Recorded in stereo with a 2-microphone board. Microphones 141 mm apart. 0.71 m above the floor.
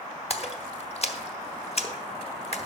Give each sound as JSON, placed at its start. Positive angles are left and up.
{"t": 0.3, "sound": "a splash", "side_deg": 45, "distance_m": 0.8}